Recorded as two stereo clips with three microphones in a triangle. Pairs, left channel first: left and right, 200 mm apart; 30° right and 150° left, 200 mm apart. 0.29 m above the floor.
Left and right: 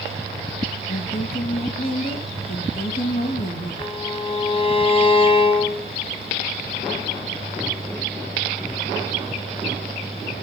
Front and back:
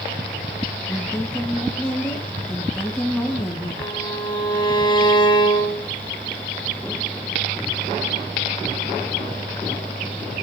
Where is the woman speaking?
55° left, 3.5 m.